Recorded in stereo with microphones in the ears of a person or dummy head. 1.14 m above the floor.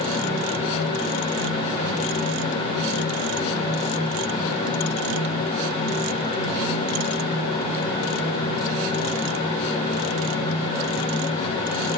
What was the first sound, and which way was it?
Only background noise.